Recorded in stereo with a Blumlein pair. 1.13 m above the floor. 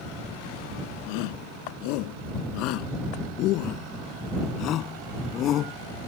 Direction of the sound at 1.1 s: 45° left.